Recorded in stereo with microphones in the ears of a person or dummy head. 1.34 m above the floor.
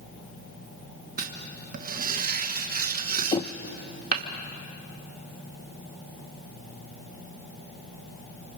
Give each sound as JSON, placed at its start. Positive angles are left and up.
{"t": 1.2, "sound": "writing", "side_deg": -50, "distance_m": 1.0}
{"t": 3.3, "sound": "knocking", "side_deg": 25, "distance_m": 0.6}